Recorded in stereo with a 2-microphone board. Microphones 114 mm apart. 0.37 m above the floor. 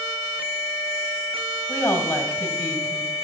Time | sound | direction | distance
1.7 | a woman speaking | 25° left (ahead or behind) | 1.5 m